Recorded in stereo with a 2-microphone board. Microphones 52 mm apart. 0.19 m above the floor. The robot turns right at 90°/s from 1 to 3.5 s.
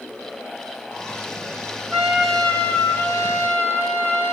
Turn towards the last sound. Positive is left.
turn(degrees=120)